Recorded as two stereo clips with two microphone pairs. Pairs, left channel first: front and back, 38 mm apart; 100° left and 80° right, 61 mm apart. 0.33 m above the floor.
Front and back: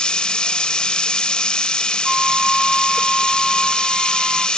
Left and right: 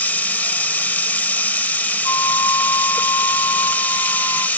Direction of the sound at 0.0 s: 55° left.